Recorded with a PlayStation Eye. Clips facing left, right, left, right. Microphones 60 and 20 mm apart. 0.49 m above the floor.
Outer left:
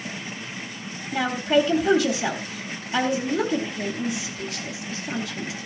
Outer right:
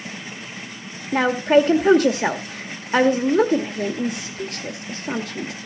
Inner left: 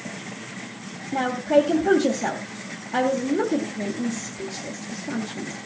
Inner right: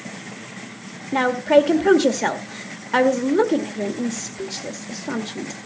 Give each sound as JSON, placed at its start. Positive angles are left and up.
{"t": 1.1, "sound": "a woman speaking", "side_deg": -50, "distance_m": 1.7}